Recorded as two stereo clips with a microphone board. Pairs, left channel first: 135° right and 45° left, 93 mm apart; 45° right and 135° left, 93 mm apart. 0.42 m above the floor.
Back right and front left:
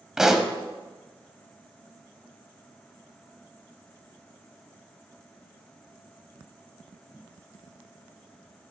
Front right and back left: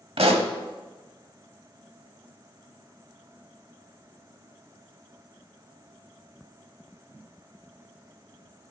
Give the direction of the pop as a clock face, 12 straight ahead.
8 o'clock.